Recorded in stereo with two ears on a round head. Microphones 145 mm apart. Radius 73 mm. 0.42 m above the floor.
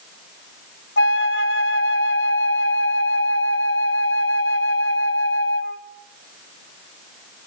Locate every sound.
1.0 s a flute: 65° left (ahead or behind), 1.4 m